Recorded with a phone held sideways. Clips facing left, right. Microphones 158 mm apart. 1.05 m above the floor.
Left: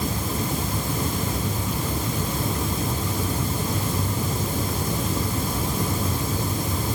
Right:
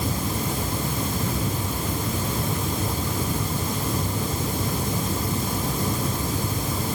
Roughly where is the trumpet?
I don't hear a trumpet.